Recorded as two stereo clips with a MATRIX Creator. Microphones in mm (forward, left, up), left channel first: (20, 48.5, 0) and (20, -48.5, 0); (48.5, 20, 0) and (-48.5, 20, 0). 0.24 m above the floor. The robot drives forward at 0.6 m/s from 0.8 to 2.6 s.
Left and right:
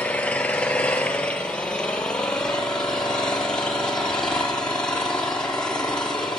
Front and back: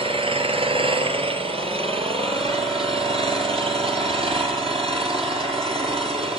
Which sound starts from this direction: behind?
An engine running, at 0.0 s.